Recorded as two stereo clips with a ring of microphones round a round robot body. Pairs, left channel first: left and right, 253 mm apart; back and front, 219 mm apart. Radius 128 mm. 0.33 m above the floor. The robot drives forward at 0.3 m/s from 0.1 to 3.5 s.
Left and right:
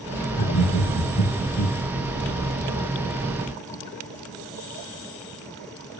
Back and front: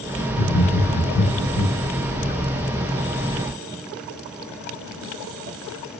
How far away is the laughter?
About 3 m.